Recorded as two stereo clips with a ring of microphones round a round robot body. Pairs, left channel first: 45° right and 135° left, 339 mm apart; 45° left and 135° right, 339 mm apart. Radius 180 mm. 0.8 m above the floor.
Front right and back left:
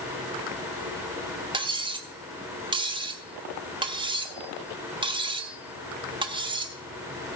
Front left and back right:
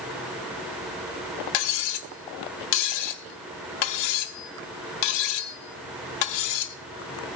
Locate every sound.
1.5 s cutlery clinking: 60° left, 0.9 m